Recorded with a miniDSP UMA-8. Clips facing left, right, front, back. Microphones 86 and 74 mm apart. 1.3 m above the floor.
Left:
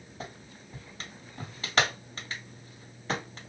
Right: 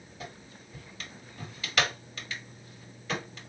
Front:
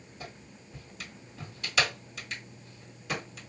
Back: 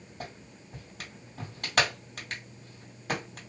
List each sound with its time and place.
0.2 s a clap: 145° left, 2.5 m